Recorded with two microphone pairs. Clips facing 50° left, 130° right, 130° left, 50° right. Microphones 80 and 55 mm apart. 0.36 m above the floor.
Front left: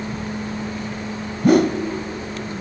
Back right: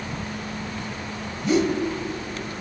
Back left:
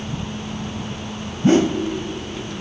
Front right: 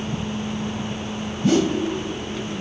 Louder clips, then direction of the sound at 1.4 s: Front left 6 dB, back left 3 dB; 75° left.